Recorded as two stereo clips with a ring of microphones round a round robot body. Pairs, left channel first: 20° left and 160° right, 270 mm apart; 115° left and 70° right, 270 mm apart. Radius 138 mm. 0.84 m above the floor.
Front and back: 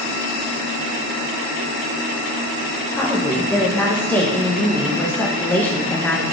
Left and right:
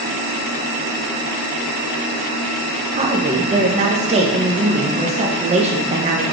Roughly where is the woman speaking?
Ahead right.